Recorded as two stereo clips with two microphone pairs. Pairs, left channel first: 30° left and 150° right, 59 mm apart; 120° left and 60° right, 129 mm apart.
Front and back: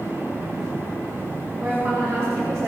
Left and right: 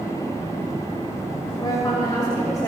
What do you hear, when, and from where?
1.6 s a woman speaking: 170° left, 5.5 m; by 2.7 s 175° right, 6 m